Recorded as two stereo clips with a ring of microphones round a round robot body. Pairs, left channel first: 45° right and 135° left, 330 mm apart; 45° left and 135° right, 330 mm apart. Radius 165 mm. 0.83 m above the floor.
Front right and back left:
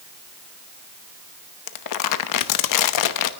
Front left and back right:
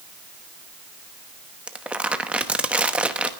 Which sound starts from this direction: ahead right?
Crumpling, at 1.7 s.